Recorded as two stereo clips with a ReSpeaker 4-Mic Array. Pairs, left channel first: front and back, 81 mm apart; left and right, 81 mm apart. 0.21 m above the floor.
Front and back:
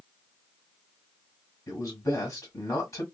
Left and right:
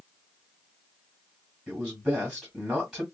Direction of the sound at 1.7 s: 5° right.